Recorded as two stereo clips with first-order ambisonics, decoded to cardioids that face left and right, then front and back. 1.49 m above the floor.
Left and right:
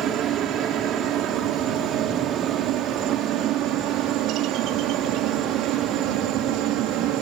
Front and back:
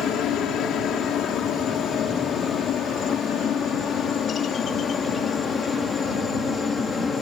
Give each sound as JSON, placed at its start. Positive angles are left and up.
{"t": 0.0, "sound": "a helicopter", "azimuth_deg": -45}